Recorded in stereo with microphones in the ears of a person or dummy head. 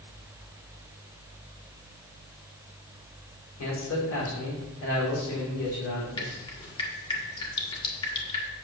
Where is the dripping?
25° left (ahead or behind), 1.5 m.